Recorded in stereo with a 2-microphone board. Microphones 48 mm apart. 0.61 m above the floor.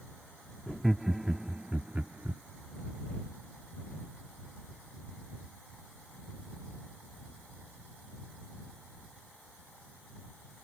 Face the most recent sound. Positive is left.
turn(degrees=-45)  # may be behind; listen again after turning